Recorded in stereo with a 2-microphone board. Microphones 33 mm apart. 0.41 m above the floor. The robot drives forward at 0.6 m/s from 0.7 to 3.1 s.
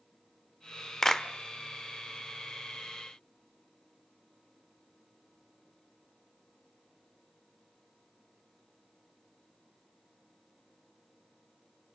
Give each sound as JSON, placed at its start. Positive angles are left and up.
{"t": 1.0, "sound": "a clap", "side_deg": 15, "distance_m": 0.9}